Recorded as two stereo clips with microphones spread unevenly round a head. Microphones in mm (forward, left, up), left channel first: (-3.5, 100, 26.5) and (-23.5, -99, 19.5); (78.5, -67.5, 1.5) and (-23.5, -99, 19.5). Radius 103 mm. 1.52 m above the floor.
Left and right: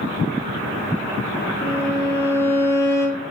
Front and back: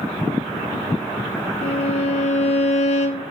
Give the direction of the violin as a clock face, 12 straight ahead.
12 o'clock.